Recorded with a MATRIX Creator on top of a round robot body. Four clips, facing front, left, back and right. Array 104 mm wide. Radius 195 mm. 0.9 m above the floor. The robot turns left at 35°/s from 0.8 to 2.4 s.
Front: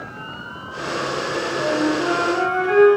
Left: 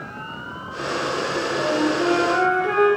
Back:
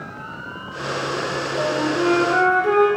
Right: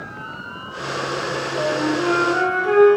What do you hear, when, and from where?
1.6 s a flute: 150° right, 3.5 m; by 2.9 s straight behind, 3.5 m